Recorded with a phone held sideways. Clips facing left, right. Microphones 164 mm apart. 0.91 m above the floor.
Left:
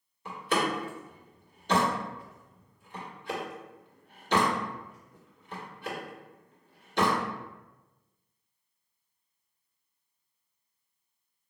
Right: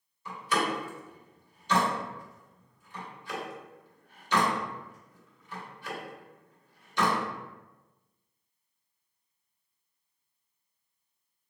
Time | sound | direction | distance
0.2 | a door slam | 60° left (ahead or behind) | 1.5 m